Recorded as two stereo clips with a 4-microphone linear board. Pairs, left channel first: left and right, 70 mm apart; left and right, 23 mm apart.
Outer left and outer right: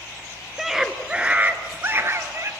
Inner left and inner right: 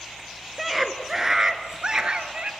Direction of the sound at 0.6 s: Centre (ahead or behind).